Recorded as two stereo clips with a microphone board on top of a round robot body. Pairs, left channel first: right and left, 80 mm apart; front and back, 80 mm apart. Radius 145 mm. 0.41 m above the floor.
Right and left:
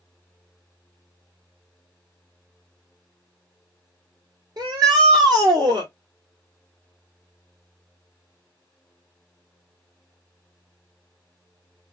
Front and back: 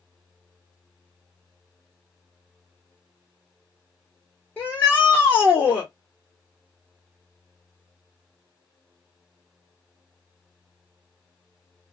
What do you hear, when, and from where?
4.6 s a shout: 75° left, 1.6 m